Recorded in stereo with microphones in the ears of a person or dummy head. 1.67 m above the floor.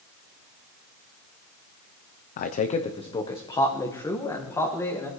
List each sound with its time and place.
2.4 s a man speaking: 45° left (ahead or behind), 0.6 m; by 5.1 s 10° left (ahead or behind), 2.5 m